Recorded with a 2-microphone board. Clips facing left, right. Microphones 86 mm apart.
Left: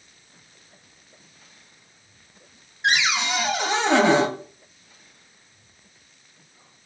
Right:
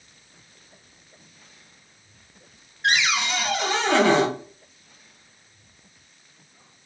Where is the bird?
No bird in this recording.